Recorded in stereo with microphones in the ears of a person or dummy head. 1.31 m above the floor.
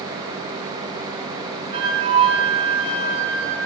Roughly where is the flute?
Right.